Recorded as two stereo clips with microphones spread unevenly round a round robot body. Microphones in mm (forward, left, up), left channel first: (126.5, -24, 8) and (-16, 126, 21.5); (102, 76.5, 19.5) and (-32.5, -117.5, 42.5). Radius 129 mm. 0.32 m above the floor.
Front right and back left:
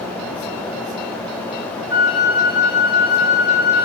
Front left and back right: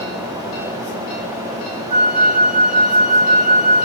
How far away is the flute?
About 5 m.